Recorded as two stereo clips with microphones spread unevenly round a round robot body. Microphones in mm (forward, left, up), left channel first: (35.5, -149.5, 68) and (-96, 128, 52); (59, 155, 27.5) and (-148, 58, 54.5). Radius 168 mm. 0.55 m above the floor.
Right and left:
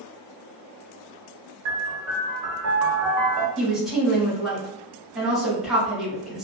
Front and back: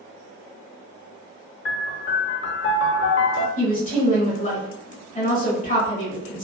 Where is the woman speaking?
30° left, 1.4 m.